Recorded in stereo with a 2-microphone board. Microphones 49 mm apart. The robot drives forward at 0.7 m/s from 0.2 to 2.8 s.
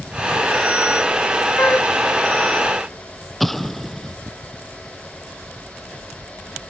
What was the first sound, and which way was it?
A flute, 50° left (ahead or behind).